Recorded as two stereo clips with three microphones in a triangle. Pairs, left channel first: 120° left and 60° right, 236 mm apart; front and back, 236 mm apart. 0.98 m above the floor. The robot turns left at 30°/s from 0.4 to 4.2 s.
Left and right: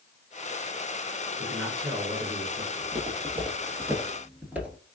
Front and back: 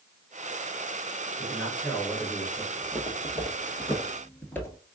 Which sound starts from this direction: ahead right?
A man speaking, at 1.4 s.